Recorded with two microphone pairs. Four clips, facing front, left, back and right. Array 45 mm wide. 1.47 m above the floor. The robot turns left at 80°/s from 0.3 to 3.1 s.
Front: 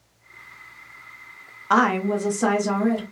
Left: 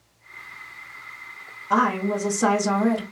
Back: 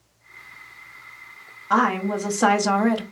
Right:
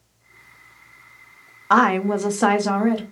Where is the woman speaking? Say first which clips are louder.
Right 4 dB, front 1 dB; 70° right, 0.6 m; by 3.0 s 175° right, 0.6 m.